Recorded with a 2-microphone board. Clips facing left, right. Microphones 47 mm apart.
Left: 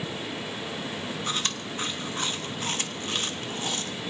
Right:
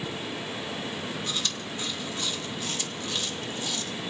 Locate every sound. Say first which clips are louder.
1.3 s chewing: left 2 dB; 40° left (ahead or behind), 1.0 m